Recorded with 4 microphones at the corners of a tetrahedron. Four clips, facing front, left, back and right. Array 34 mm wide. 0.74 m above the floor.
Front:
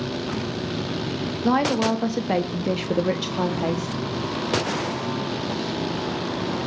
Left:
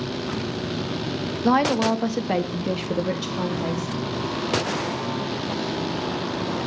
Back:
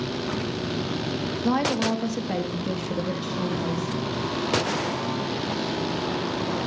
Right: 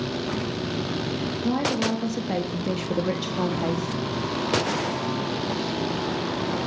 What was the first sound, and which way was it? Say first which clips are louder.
A woman speaking: left 6 dB, front 3 dB; 70° left.